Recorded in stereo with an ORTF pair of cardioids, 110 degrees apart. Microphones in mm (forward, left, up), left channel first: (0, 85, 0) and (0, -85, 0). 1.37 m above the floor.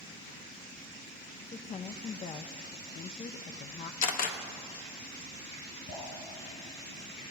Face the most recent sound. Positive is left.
turn(degrees=65)